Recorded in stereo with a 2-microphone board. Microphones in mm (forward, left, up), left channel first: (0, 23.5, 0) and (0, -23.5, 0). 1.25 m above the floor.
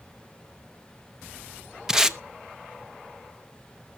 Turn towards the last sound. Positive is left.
turn(degrees=-10)  # may be behind; listen again after turning